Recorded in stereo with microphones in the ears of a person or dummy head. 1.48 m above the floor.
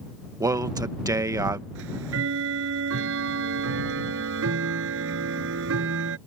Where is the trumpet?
No trumpet in this recording.